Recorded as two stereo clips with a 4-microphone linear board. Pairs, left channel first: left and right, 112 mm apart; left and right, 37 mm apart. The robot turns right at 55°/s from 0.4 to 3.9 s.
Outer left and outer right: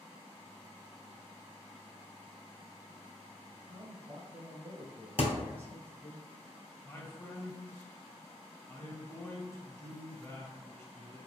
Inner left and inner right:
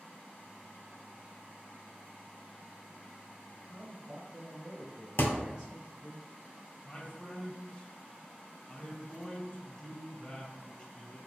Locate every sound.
3.7 s a man speaking: 25° right (ahead or behind), 1.0 m; by 6.2 s 20° right (ahead or behind), 1.0 m
5.2 s a thud: 60° left (ahead or behind), 0.6 m
6.8 s a man speaking: 25° left (ahead or behind), 1.0 m